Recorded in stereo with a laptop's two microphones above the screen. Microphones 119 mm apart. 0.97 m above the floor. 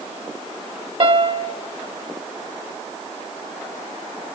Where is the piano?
45° right (ahead or behind), 0.8 m.